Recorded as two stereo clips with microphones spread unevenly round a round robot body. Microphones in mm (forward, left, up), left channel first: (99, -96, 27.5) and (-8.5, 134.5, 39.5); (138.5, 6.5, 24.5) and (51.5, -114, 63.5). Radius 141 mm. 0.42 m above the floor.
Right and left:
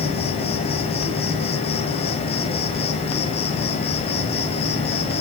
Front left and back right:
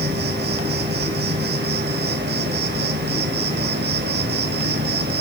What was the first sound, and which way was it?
An insect, 130° right.